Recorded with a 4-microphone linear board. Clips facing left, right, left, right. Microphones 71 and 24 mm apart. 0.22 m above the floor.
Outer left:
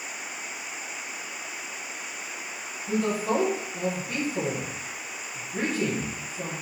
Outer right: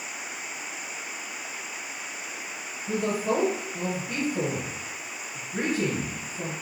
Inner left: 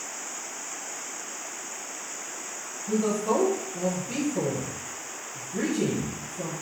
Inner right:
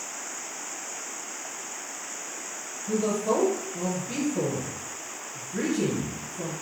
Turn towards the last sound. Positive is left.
turn(degrees=-5)  # may be behind; listen again after turning